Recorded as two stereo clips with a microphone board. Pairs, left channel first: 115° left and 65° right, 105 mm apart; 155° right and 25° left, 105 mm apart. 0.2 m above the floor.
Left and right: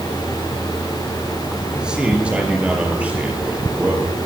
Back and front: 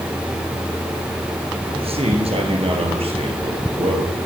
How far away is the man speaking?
About 3.5 m.